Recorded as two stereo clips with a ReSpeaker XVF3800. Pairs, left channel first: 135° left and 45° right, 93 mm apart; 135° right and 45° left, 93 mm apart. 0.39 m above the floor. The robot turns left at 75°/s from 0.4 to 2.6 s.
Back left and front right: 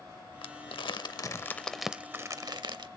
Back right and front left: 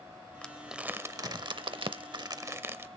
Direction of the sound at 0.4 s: 150° left.